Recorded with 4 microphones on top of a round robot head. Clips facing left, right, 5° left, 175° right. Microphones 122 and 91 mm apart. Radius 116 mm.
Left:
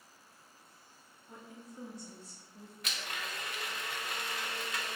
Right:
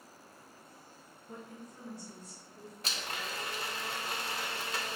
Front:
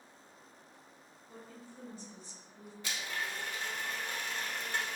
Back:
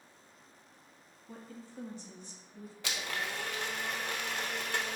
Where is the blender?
150° right, 0.5 m.